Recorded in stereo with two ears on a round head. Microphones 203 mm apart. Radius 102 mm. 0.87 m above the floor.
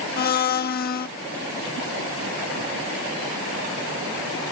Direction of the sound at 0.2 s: 40° left (ahead or behind).